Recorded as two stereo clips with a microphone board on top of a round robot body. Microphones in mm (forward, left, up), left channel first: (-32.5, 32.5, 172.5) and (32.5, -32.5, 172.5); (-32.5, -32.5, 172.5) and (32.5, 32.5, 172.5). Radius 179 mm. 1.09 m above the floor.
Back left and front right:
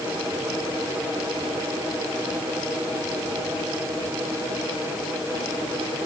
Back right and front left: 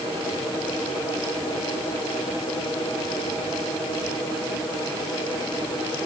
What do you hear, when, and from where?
Only background noise.